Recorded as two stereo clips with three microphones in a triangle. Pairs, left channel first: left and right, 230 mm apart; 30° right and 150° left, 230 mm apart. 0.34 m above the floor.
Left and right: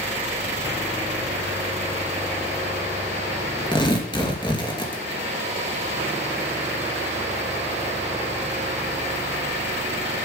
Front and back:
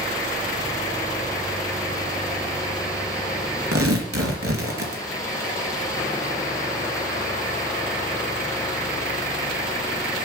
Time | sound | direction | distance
3.7 | tearing paper | 160° left | 2.5 m